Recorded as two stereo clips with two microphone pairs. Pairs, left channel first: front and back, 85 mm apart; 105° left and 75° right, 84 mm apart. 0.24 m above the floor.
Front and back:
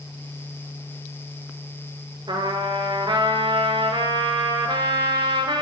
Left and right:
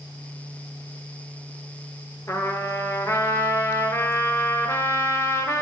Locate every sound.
2.3 s a trumpet: 160° left, 0.9 m